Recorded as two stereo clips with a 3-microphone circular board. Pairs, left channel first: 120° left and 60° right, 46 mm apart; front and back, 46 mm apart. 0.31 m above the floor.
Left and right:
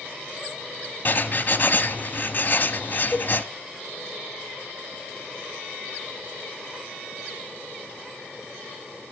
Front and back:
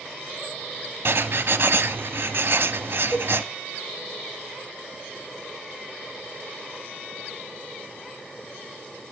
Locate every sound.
1.1 s writing: 160° left, 0.7 m
3.1 s a cowbell: 60° left, 0.9 m